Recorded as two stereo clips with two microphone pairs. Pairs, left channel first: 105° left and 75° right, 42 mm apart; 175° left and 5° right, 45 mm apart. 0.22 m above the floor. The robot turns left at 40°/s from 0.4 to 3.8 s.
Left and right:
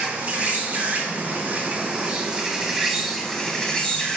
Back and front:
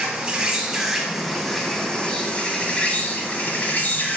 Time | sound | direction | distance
0.0 | an insect | 60° right | 0.7 m